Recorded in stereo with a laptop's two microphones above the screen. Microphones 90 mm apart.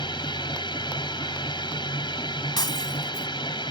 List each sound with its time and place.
0.0 s a machine running: 65° left (ahead or behind)
2.6 s breaking glass: 55° left (ahead or behind)